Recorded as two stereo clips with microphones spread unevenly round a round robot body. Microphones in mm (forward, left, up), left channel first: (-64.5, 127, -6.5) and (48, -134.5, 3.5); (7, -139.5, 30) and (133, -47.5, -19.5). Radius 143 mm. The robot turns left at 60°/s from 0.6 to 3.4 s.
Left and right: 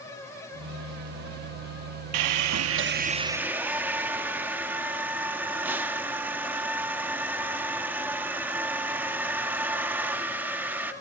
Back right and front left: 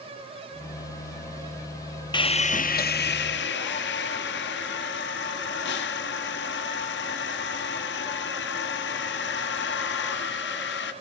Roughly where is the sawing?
Right.